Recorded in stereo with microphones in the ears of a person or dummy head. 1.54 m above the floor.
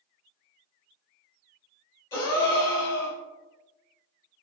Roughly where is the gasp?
Centre.